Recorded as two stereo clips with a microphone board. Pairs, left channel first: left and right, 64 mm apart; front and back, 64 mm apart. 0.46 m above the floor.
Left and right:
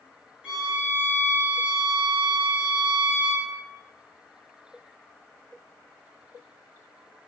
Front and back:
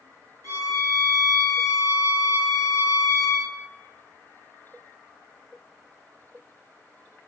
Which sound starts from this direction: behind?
A violin, at 0.4 s.